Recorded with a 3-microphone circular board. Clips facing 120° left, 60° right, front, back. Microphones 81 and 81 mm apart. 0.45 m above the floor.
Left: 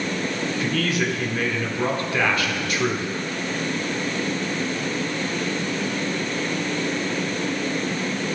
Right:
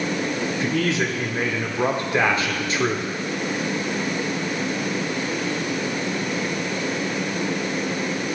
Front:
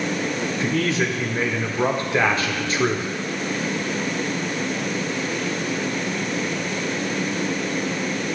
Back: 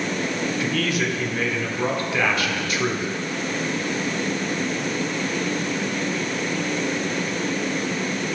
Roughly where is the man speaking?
Ahead right.